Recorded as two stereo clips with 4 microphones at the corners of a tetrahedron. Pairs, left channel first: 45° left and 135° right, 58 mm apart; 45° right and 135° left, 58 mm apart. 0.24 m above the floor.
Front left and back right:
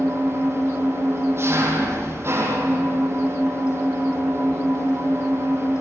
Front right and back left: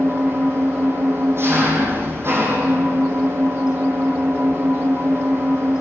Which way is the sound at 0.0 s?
Straight behind.